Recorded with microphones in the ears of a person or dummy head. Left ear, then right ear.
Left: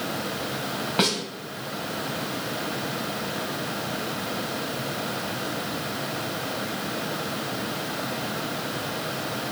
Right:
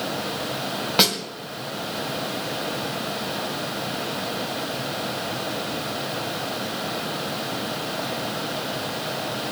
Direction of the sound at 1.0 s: 25° right (ahead or behind).